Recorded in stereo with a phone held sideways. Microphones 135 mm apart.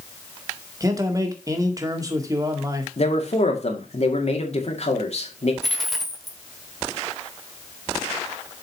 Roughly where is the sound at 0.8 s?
Right.